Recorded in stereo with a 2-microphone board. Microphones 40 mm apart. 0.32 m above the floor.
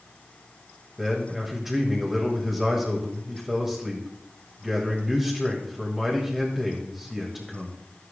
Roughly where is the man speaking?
Centre.